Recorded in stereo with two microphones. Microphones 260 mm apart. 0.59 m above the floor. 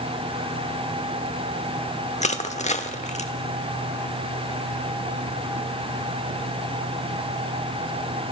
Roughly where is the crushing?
Left.